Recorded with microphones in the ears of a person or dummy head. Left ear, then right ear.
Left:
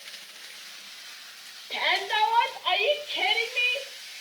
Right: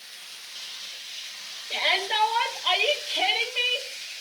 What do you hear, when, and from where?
1.7 s a shout: centre (ahead or behind), 6 m; by 3.9 s 5° right (ahead or behind), 5 m